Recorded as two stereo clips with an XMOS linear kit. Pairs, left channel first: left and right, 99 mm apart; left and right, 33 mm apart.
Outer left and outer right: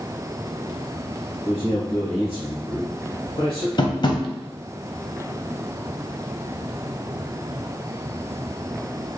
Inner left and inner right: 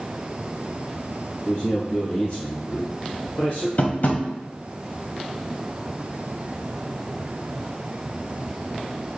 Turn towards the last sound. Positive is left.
turn(degrees=50)  # may be behind; listen again after turning